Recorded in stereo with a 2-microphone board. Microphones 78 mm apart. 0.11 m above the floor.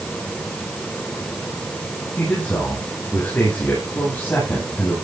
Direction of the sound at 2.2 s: 25° left (ahead or behind).